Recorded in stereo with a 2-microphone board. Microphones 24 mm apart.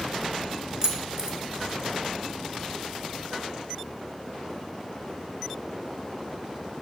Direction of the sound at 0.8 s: 25° right (ahead or behind).